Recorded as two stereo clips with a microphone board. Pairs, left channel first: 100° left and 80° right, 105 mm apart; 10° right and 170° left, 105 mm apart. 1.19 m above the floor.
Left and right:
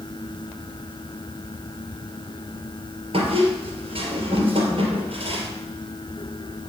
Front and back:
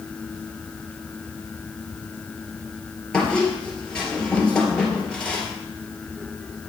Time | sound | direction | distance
3.1 | a squeak | 95° right | 2.5 m